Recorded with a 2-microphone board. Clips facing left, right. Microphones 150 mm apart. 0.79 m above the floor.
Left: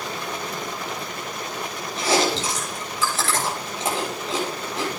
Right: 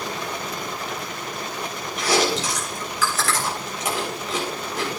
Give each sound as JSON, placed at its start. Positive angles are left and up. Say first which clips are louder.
{"t": 2.0, "sound": "chewing", "louder": "even", "side_deg": 25, "distance_m": 8.5}